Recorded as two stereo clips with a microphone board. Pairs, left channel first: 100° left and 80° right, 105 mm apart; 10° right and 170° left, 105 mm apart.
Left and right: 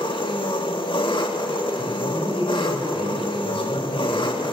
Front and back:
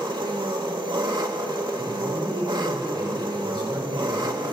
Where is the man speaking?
130° left, 5.5 m.